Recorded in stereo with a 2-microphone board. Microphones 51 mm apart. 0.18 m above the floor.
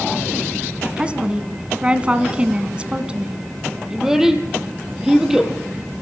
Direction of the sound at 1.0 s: 20° right (ahead or behind).